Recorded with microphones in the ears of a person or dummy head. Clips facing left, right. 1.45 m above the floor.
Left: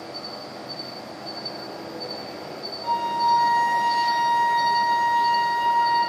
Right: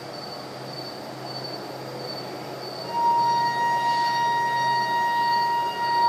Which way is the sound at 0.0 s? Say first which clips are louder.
Even; 60° right (ahead or behind).